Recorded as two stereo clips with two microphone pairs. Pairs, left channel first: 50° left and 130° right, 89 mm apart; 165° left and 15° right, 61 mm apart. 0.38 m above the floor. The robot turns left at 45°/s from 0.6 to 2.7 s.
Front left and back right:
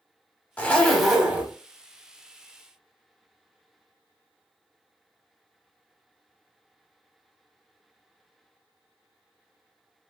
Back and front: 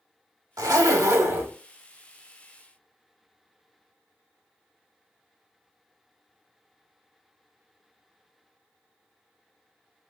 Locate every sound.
0.6 s a zipper: 20° right, 0.6 m; by 1.5 s 60° right, 0.6 m